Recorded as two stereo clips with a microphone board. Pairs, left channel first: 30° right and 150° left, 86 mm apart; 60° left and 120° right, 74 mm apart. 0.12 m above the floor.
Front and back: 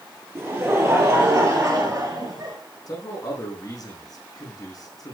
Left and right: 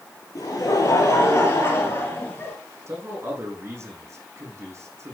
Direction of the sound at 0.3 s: 90° left.